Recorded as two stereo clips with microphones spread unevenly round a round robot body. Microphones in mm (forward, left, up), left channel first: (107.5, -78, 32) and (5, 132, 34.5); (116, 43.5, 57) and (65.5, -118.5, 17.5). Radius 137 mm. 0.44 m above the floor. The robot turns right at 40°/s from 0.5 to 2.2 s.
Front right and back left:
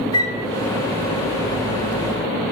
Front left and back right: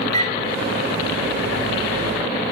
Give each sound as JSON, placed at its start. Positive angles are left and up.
{"t": 0.1, "sound": "a flute", "azimuth_deg": -5, "distance_m": 0.6}